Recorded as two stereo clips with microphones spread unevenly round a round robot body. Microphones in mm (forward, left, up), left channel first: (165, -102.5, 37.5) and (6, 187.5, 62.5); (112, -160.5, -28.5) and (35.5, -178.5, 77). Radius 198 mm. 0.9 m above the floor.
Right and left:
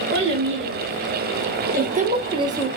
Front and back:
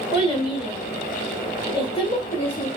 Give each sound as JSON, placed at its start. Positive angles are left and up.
{"t": 0.1, "sound": "a child speaking", "azimuth_deg": 65, "distance_m": 2.0}